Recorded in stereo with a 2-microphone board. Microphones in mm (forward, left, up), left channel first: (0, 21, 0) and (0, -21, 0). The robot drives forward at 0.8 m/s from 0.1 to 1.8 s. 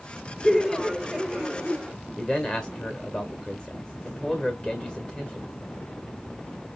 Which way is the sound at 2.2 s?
20° left (ahead or behind).